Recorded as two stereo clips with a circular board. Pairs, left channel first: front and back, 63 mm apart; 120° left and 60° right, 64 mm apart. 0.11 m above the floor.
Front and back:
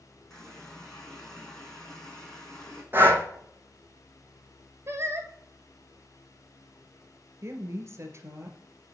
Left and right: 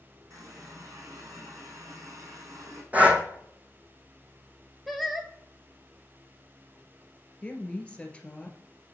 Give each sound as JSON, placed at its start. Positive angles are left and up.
{"t": 0.3, "sound": "a running tap", "azimuth_deg": -80, "distance_m": 3.5}
{"t": 2.9, "sound": "breathing", "azimuth_deg": -125, "distance_m": 1.3}
{"t": 4.9, "sound": "singing", "azimuth_deg": -150, "distance_m": 1.0}
{"t": 7.4, "sound": "a woman speaking", "azimuth_deg": -175, "distance_m": 1.7}